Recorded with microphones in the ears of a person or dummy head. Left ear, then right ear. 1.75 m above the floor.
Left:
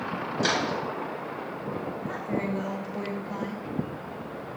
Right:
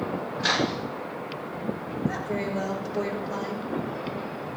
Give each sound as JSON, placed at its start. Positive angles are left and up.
{"t": 0.4, "sound": "a microwave", "side_deg": 60, "distance_m": 9.0}
{"t": 2.1, "sound": "a woman speaking", "side_deg": 40, "distance_m": 4.0}